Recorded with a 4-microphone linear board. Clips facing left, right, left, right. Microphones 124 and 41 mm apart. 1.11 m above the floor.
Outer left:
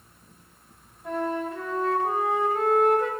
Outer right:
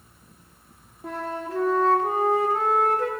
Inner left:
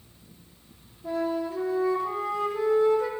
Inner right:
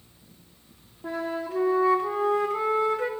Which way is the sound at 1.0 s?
80° right.